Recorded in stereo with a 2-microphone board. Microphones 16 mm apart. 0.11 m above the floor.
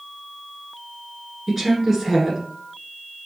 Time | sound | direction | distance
1.5 | a woman speaking | 15° right (ahead or behind) | 1.2 m